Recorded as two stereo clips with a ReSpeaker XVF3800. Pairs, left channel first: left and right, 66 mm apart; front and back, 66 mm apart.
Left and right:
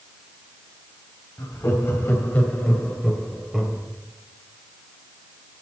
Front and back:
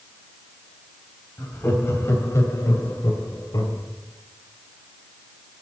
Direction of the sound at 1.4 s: 55° left.